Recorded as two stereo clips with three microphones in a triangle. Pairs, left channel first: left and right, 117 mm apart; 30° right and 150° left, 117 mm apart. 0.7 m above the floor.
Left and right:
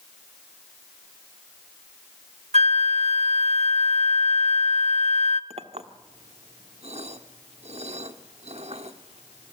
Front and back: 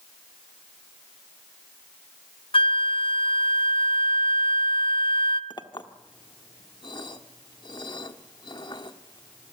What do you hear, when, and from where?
2.5 s a flute: 70° right, 0.8 m
5.5 s a clink: 75° right, 1.4 m